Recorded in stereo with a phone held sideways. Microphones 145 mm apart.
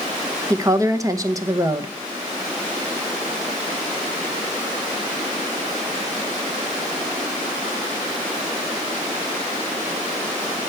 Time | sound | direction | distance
0.5 | a woman speaking | 25° right (ahead or behind) | 0.8 m